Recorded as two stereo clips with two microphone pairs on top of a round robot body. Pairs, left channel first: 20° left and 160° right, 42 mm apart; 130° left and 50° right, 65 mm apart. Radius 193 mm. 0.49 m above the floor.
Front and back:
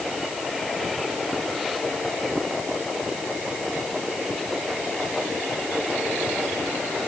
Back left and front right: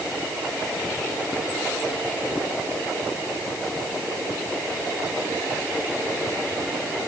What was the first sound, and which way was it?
Only background noise.